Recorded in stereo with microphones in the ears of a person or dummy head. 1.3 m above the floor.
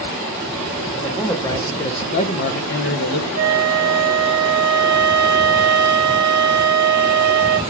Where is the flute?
80° right, 1.6 m.